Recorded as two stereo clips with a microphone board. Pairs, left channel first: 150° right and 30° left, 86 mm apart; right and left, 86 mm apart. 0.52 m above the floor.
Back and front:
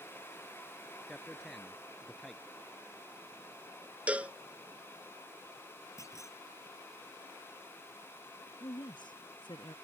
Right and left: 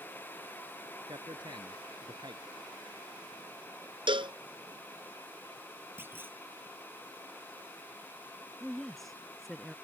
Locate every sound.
1.1 s a man speaking: 120° left
4.1 s a cowbell: 105° left
6.0 s a clunk: 155° left
8.6 s a woman speaking: straight behind